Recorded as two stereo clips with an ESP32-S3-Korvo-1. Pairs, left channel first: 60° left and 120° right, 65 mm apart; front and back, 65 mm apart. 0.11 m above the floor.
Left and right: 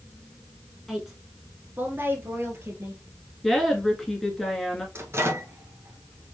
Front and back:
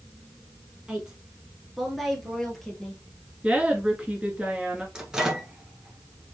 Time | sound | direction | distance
0.9 | a woman speaking | 135° left | 1.2 m
3.4 | a woman speaking | 140° left | 1.7 m
5.0 | a microwave | 105° right | 1.4 m